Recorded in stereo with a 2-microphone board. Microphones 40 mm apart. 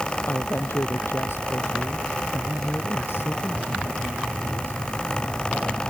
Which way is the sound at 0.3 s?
80° left.